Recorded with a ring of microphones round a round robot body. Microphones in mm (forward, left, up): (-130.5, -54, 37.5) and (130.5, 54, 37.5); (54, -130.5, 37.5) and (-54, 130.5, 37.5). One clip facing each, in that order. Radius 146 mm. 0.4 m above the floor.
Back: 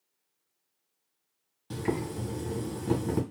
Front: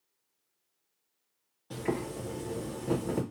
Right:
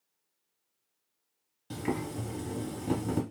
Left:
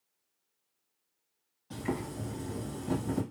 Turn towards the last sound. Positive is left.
turn(degrees=-105)